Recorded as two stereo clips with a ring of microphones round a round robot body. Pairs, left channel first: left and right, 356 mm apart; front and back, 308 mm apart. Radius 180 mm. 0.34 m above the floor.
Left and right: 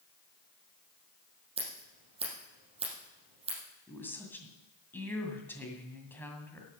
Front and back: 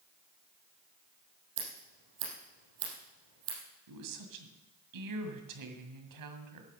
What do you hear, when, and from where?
1.6 s scissors: 165° right, 4 m
3.9 s a woman speaking: 175° left, 2 m